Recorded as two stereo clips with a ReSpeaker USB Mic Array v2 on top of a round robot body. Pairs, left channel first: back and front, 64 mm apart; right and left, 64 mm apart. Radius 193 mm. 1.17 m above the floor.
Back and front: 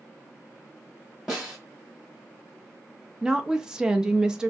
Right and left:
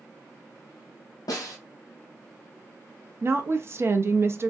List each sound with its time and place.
1.3 s a snare drum: 80° right, 0.6 m
3.2 s a woman speaking: 75° left, 0.6 m